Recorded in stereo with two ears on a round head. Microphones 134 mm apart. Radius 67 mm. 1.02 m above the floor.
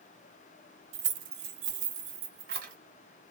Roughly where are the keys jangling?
Right.